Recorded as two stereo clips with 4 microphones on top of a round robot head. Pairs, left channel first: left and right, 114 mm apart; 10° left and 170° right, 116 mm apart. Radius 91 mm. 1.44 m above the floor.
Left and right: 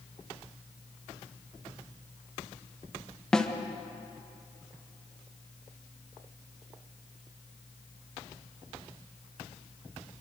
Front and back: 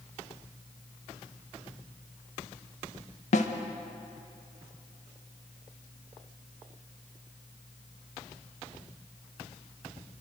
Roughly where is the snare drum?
Ahead.